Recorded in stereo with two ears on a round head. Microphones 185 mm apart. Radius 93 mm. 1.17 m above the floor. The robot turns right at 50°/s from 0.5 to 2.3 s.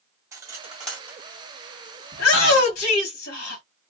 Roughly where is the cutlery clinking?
Centre.